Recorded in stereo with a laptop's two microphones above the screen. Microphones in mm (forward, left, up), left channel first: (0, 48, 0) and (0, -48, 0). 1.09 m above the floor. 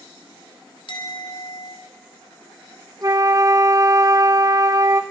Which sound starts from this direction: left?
A clink, at 0.9 s.